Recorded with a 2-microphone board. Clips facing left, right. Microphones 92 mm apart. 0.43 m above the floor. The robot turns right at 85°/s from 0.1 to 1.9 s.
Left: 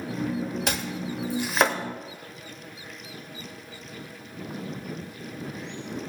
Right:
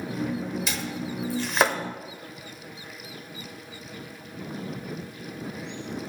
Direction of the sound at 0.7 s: 60° left (ahead or behind).